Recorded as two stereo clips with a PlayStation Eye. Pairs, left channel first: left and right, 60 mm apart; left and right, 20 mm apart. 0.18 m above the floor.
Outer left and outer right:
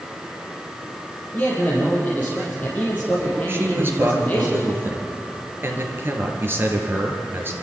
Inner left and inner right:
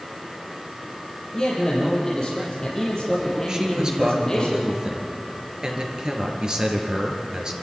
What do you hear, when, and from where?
1.3 s a man speaking: 25° left (ahead or behind), 6.5 m
3.5 s a man speaking: 35° right (ahead or behind), 3.5 m